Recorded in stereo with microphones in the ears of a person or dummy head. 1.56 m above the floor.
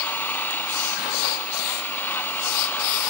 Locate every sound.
0.0 s an engine running: 10° left (ahead or behind)